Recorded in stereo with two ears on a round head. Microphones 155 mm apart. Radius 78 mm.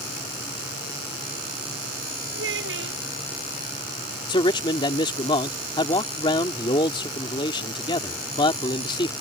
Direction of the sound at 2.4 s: 85° right.